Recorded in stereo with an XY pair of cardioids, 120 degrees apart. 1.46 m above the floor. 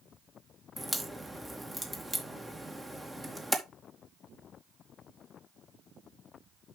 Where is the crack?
10° right, 2 m.